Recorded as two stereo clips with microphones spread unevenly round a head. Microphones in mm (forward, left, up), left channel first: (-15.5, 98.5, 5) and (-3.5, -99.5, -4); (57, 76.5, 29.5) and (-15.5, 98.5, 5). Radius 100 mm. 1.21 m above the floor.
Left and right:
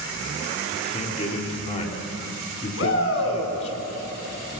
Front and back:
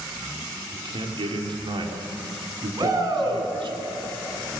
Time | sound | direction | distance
0.7 | a man speaking | 150° left | 3.5 m
2.8 | a shout | 120° left | 9 m